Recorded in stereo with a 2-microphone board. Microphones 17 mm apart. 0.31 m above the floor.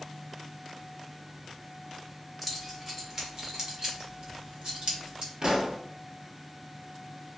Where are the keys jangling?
5° right (ahead or behind), 1.5 m; by 5.3 s 65° right (ahead or behind), 2 m.